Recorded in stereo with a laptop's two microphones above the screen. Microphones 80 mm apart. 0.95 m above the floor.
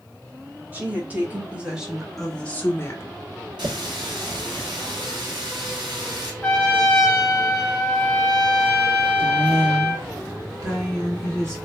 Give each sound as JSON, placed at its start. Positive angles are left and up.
{"t": 0.7, "sound": "a woman speaking", "side_deg": -25, "distance_m": 1.3}
{"t": 3.6, "sound": "a running tap", "side_deg": -80, "distance_m": 1.1}
{"t": 6.4, "sound": "a trumpet", "side_deg": 15, "distance_m": 1.4}
{"t": 9.2, "sound": "a woman speaking", "side_deg": -45, "distance_m": 1.7}